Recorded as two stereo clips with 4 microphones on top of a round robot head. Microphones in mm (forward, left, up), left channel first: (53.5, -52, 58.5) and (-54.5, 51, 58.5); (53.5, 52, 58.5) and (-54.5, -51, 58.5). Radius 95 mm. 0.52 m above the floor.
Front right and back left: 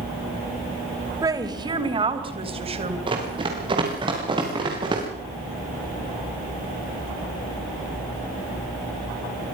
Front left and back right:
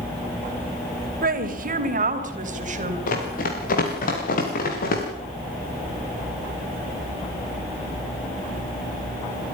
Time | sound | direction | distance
1.2 | a woman speaking | 155° right | 3 m
3.1 | running footsteps | 75° left | 7 m